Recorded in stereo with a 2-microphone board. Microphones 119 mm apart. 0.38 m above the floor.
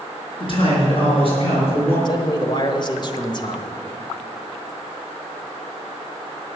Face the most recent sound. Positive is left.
turn(degrees=40)  # may be behind; listen again after turning